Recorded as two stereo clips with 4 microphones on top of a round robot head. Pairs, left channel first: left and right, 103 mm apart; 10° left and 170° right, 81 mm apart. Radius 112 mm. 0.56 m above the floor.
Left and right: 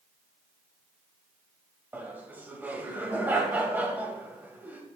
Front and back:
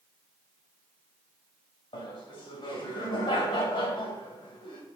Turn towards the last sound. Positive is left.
turn(degrees=-15)